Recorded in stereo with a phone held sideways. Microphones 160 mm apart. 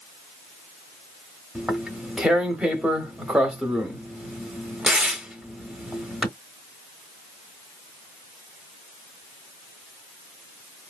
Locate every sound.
1.6 s tearing paper: 5° right (ahead or behind), 1.1 m